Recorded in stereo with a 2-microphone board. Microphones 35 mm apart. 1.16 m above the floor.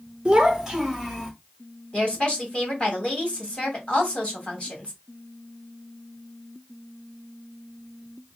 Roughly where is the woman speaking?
Left.